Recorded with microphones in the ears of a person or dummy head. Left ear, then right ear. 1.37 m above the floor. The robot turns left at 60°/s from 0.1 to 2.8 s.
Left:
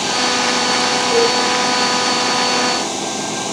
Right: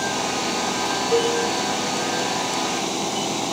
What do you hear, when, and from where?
1.1 s a cowbell: 55° right (ahead or behind), 6.5 m; by 1.4 s 45° right (ahead or behind), 6.5 m